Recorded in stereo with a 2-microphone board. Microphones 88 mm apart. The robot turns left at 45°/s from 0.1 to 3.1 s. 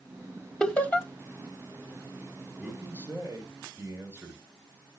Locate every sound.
0.6 s laughter: 10° left (ahead or behind), 1.1 m; by 1.1 s 20° left (ahead or behind), 1.1 m
2.6 s a man speaking: centre (ahead or behind), 4 m; by 4.4 s 25° right (ahead or behind), 4 m